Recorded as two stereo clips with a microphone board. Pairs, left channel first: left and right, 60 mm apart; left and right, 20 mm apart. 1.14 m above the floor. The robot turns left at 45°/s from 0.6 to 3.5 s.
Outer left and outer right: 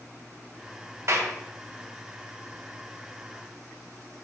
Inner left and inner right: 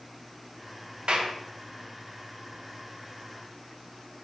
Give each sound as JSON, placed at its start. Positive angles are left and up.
{"t": 1.1, "sound": "a clap", "side_deg": -55, "distance_m": 1.0}